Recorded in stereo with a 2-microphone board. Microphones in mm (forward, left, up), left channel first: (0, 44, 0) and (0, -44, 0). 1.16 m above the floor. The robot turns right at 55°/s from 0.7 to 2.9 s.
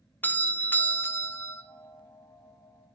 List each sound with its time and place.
0.2 s a doorbell: 20° left (ahead or behind), 0.6 m; by 1.6 s 30° left (ahead or behind), 0.6 m